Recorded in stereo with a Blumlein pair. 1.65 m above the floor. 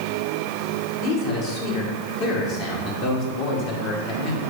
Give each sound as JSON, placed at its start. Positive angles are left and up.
{"t": 1.0, "sound": "a man speaking", "azimuth_deg": 40, "distance_m": 2.5}